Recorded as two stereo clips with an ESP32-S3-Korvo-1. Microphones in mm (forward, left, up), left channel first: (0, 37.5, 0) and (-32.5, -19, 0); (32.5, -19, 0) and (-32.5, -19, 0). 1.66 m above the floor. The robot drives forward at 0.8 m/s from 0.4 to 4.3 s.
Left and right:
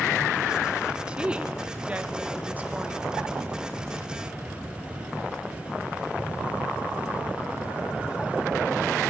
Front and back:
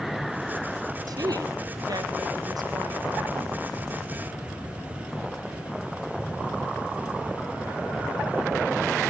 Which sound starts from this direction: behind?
A woman speaking, at 1.1 s.